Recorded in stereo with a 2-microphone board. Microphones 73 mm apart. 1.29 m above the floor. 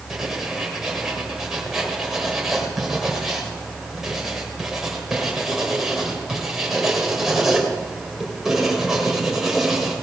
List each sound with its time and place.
0.1 s writing: 5° right (ahead or behind), 3 m